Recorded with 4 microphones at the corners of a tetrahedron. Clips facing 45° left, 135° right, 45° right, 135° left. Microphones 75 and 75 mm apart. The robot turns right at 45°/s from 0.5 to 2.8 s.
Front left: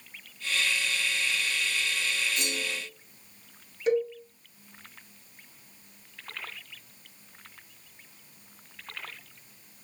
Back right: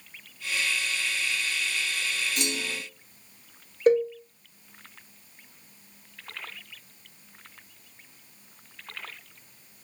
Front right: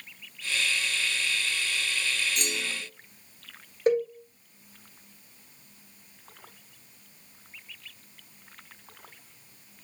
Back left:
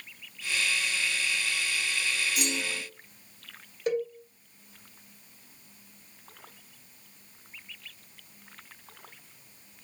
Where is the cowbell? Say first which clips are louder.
Back right 5 dB, front right 5 dB; 90° right, 3.5 m.